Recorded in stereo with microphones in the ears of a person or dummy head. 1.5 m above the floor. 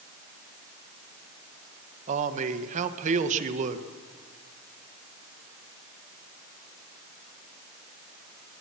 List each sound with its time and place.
2.1 s a man speaking: 40° right (ahead or behind), 1.7 m